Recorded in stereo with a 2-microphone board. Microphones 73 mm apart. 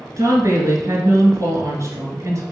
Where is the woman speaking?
45° right (ahead or behind), 1.6 m.